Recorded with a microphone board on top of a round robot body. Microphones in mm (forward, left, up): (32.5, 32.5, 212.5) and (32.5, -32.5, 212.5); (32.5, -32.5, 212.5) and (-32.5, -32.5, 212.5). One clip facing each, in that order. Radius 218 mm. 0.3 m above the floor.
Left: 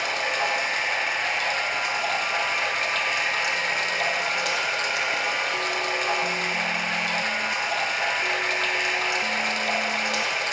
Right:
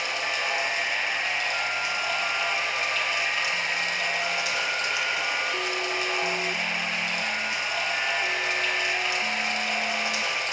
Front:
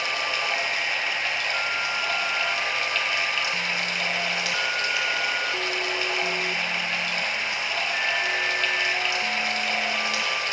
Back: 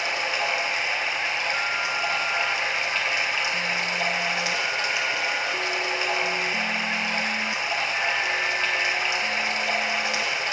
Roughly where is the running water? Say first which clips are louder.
Left 3 dB, back 1 dB; behind left.